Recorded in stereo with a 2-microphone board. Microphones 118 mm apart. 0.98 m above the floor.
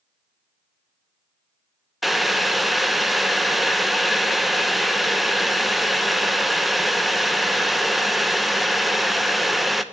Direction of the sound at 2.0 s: Centre (ahead or behind).